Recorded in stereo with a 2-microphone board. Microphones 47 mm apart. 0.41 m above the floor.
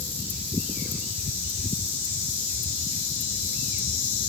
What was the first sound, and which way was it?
Only background noise.